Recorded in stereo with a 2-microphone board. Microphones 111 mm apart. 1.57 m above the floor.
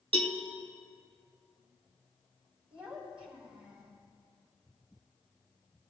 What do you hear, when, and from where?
0.1 s a cowbell: 55° right (ahead or behind), 1.4 m
2.7 s a child speaking: 15° right (ahead or behind), 4.5 m